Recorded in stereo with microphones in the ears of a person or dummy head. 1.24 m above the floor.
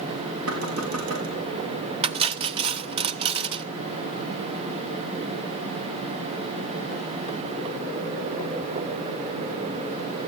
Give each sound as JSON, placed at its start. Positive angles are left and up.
{"t": 0.5, "sound": "knocking", "side_deg": -80, "distance_m": 6.0}
{"t": 2.0, "sound": "cutlery clinking", "side_deg": -30, "distance_m": 1.3}